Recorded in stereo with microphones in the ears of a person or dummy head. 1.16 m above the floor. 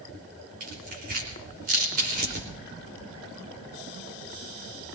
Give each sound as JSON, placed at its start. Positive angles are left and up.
{"t": 0.6, "sound": "tearing paper", "side_deg": -50, "distance_m": 3.5}